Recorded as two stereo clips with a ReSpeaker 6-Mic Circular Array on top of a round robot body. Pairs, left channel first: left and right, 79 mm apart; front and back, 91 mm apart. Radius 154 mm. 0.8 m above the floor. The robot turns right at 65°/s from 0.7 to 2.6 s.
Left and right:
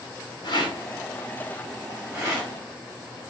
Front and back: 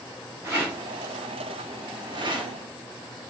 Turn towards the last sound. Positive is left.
turn(degrees=-125)